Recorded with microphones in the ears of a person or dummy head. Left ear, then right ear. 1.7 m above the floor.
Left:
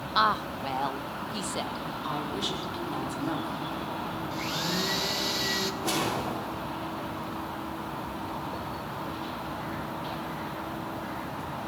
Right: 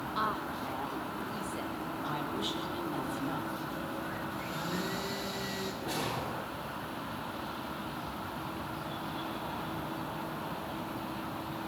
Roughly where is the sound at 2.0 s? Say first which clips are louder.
Left 4 dB; left.